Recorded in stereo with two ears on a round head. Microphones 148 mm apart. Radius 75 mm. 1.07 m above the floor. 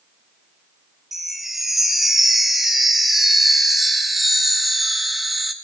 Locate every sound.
1.1 s a chime: centre (ahead or behind), 1.2 m